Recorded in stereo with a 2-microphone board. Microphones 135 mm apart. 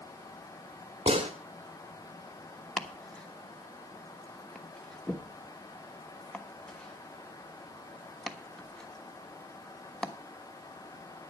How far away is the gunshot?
About 1.6 m.